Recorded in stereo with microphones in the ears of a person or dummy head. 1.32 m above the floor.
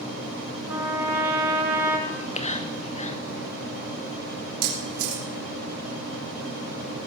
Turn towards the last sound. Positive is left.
turn(degrees=-65)  # may be behind; listen again after turning